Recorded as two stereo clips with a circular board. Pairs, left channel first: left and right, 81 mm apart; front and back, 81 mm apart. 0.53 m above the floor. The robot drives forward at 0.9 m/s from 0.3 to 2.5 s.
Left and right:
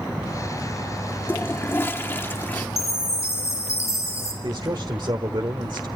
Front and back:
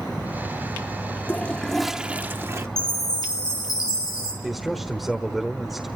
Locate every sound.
1.3 s a toilet flushing: 45° left, 1.1 m; by 2.7 s 145° left, 1.2 m
2.8 s a chime: 40° left, 6 m
4.4 s a man speaking: 90° right, 1.4 m